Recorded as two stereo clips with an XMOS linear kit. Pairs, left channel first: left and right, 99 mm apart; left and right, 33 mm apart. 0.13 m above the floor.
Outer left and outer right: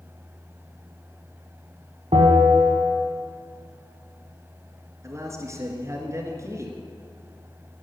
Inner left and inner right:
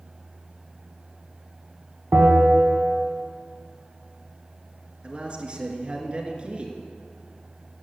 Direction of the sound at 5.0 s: 35° right (ahead or behind).